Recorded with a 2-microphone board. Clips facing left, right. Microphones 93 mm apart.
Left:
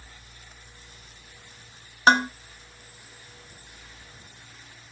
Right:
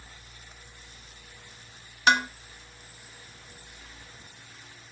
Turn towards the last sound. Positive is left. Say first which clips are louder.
# left 4 dB
turn(degrees=40)  # may be behind; listen again after turning